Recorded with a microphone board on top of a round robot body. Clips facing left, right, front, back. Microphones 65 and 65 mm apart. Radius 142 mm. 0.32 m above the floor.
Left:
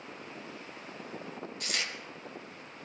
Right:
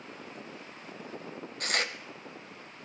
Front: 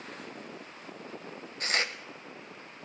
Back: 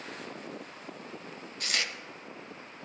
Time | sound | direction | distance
1.6 | tearing paper | 55° right | 0.9 m